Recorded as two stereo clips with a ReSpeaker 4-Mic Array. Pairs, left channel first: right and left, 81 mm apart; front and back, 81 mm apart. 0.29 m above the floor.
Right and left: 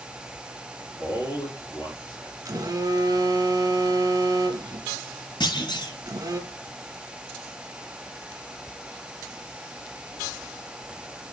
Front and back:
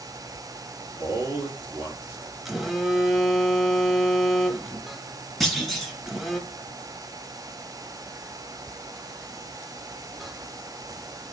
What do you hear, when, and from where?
1.0 s a man speaking: 125° right, 4.5 m
2.5 s a phone buzzing: 90° left, 1.3 m
5.4 s a clunk: 90° right, 2 m